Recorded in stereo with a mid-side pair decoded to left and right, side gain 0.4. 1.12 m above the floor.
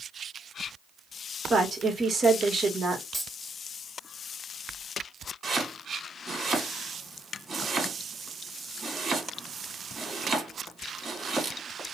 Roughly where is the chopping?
Ahead right.